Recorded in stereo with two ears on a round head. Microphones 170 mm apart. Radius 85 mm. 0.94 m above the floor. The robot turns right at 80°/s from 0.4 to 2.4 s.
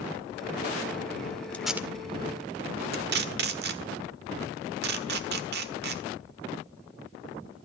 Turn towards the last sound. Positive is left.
turn(degrees=-60)  # may be behind; listen again after turning